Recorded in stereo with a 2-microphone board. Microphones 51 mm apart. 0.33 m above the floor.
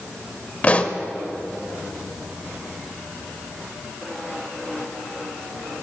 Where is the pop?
30° left (ahead or behind), 0.6 m.